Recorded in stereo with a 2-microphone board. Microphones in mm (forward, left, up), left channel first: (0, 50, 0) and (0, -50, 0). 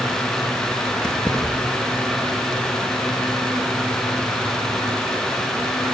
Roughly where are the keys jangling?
Centre.